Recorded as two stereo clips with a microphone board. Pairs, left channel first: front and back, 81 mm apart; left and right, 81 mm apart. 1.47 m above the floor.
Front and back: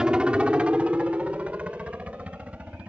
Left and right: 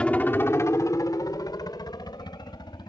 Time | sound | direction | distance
0.0 | a helicopter | 125° left | ?